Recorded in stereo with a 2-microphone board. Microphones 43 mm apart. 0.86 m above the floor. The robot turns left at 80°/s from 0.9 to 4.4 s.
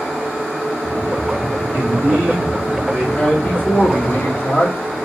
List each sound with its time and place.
1.7 s a man speaking: 75° right, 2 m; by 5.0 s 75° left, 2 m